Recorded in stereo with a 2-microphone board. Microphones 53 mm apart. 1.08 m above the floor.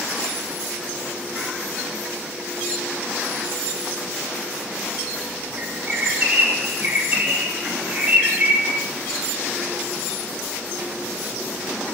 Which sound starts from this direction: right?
A bird, at 5.6 s.